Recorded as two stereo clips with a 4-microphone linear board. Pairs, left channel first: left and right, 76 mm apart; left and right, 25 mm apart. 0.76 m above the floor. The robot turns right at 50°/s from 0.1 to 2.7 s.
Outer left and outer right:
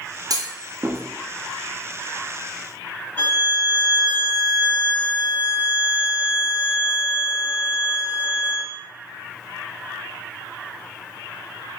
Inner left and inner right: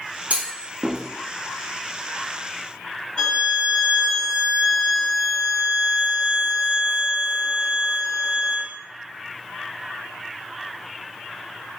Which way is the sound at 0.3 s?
60° right (ahead or behind).